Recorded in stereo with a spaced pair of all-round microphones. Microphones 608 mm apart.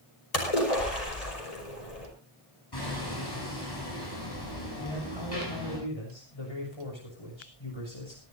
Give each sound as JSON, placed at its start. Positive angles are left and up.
{"t": 0.3, "sound": "a splash", "side_deg": 85, "distance_m": 5.5}
{"t": 2.7, "sound": "hammering", "side_deg": 40, "distance_m": 9.0}
{"t": 4.8, "sound": "a man speaking", "side_deg": 50, "distance_m": 7.0}